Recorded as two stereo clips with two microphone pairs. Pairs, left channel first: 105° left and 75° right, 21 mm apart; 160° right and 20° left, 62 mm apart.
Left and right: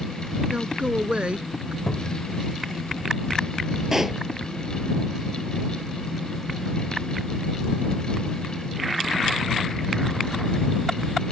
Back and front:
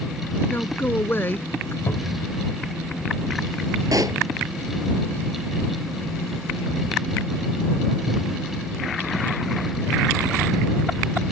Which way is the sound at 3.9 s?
Straight ahead.